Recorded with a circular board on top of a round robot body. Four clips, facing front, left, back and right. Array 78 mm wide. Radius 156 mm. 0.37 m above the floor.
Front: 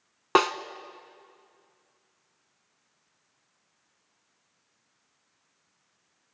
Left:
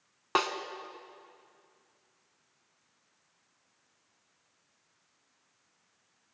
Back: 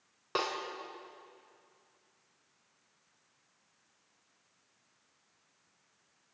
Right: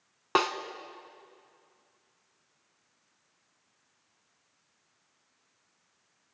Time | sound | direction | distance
0.3 | a snare drum | 10° right | 0.8 m